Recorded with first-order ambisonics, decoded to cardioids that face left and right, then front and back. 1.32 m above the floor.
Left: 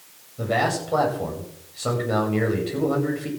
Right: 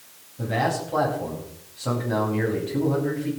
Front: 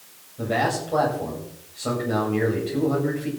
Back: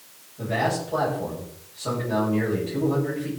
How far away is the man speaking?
About 8 m.